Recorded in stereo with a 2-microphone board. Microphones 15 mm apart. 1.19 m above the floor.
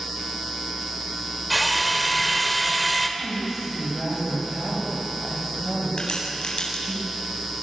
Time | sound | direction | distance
1.5 | a drill | 5° right (ahead or behind) | 2.5 m
3.2 | a woman speaking | 35° right (ahead or behind) | 7 m
6.0 | a crack | 90° left | 9 m